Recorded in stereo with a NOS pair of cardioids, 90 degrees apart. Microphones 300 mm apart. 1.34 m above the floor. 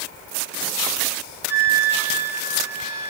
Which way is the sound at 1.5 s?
30° right.